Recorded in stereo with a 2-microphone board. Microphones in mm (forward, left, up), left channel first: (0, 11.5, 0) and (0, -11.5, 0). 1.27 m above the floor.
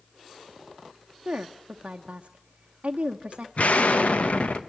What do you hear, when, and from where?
1.2 s a woman speaking: 55° right (ahead or behind), 0.9 m
3.6 s an explosion: 85° left, 1.1 m